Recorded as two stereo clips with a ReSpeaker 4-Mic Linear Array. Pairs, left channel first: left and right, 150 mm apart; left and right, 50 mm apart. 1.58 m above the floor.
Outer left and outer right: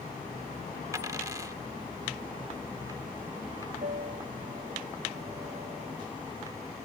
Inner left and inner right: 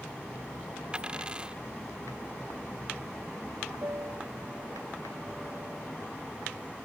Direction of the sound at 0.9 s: 20° right (ahead or behind).